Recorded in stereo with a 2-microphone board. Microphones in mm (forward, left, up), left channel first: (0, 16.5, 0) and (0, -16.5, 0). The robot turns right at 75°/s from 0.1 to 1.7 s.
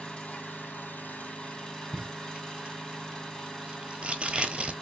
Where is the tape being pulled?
35° right (ahead or behind), 0.8 m.